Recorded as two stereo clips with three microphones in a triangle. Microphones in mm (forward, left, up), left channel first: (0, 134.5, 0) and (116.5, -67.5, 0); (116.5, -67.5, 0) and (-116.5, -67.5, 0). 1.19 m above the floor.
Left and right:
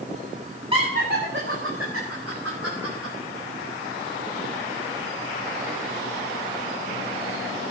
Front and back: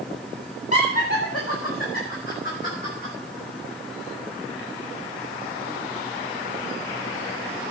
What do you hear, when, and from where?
0.7 s laughter: 10° left, 1.6 m; by 3.1 s 50° right, 4.5 m